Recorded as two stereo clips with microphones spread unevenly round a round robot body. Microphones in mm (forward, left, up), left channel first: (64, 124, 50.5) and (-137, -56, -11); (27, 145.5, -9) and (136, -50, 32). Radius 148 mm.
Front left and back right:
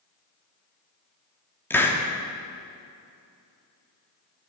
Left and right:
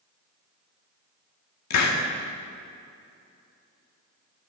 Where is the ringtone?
I don't hear a ringtone.